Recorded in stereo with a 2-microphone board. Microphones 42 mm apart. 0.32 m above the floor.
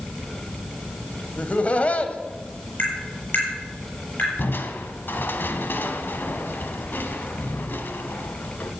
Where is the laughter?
35° left (ahead or behind), 1.7 m.